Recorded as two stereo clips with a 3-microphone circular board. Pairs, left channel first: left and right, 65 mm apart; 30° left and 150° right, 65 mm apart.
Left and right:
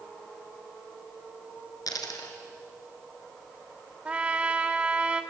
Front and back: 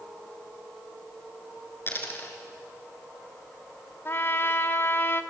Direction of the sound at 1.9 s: 85° left.